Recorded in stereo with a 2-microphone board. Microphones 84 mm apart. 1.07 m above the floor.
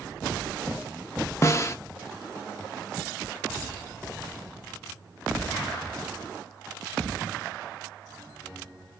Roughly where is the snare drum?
Left.